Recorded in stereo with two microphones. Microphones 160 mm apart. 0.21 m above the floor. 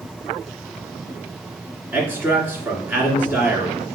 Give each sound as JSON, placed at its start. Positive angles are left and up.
{"t": 1.9, "sound": "a man speaking", "side_deg": -15, "distance_m": 2.0}